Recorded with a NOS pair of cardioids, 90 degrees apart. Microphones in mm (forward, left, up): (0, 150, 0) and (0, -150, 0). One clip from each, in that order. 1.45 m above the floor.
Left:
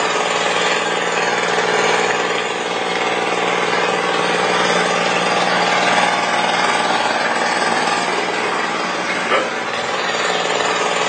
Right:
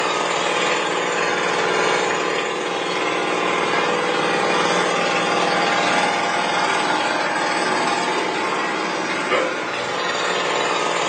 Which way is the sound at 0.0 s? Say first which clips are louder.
Left 3 dB; 25° left.